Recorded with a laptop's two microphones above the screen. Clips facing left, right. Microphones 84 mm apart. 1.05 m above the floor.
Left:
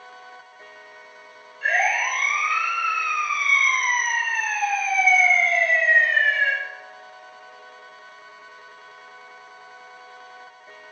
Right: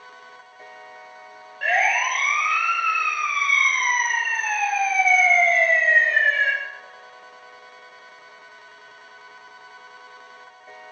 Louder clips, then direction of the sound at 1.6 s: Right 1 dB; 75° right (ahead or behind).